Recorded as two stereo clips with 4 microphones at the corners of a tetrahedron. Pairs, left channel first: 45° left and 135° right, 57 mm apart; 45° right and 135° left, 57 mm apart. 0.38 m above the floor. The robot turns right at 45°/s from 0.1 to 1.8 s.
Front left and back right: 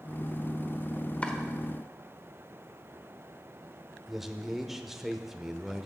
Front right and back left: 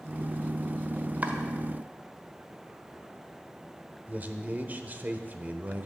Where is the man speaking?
150° left, 0.9 m.